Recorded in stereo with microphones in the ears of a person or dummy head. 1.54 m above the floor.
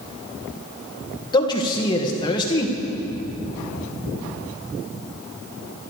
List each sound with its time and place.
1.3 s a man speaking: 25° left (ahead or behind), 1.7 m